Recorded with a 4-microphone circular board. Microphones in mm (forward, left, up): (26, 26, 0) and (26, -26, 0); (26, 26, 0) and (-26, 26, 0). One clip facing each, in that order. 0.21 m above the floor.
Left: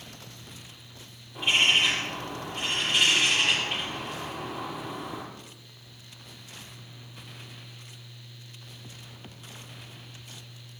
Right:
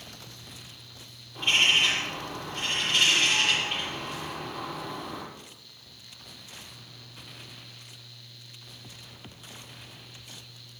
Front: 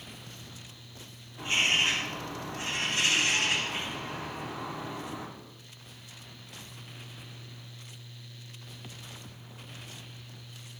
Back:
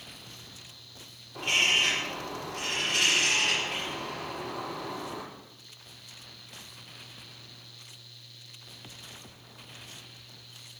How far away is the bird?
About 6.5 m.